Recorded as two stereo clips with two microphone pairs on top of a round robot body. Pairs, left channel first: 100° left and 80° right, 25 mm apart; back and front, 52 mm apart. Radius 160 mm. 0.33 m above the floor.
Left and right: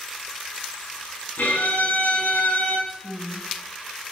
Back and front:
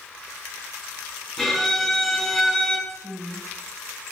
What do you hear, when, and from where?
1.4 s a violin: 95° left, 5.5 m
2.9 s a woman speaking: 25° right, 3.5 m